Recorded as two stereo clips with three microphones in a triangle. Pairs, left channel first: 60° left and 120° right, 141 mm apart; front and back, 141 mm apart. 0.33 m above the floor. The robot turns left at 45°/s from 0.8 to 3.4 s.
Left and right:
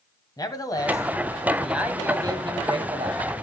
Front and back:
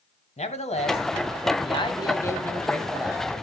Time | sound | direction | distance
0.4 | a man speaking | 5° left | 1.7 m